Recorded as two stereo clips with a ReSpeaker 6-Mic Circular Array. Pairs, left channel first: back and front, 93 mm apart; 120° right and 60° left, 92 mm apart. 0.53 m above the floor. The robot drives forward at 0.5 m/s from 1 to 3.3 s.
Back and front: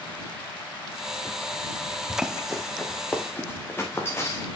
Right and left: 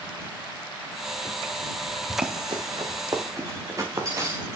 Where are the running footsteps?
70° left, 1.5 m; by 4.5 s 120° left, 2.5 m.